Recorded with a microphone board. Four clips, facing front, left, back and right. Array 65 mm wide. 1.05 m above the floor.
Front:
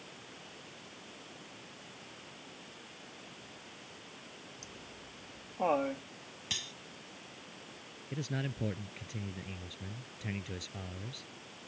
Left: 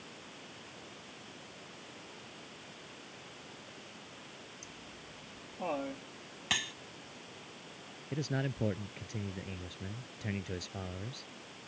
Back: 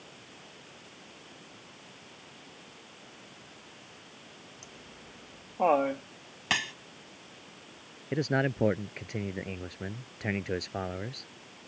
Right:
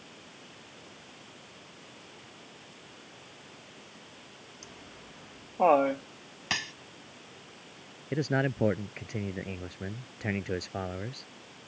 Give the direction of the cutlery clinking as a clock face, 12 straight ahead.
6 o'clock.